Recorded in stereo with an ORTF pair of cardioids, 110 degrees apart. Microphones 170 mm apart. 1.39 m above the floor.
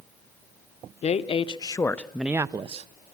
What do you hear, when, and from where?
1.0 s a woman speaking: 40° left, 1.1 m; by 2.9 s 40° right, 0.7 m